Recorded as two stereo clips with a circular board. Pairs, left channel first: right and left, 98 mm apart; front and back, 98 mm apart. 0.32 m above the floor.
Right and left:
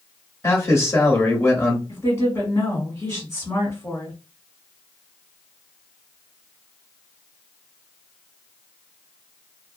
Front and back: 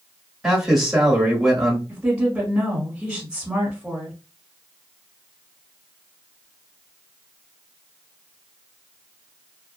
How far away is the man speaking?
About 1.0 m.